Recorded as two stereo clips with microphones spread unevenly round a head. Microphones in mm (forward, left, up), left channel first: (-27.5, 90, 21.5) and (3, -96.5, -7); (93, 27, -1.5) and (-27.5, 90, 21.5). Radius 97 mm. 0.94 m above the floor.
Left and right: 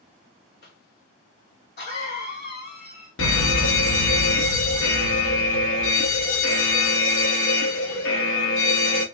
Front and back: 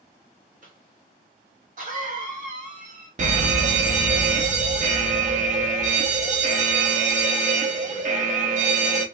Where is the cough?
135° left, 1.8 m.